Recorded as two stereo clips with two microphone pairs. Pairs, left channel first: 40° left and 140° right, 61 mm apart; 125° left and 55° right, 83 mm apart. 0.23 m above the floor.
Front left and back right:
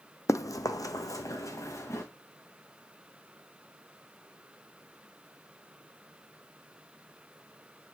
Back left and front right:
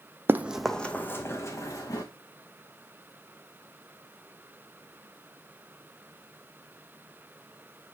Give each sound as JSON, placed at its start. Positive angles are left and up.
{"t": 0.3, "sound": "running footsteps", "azimuth_deg": 10, "distance_m": 0.6}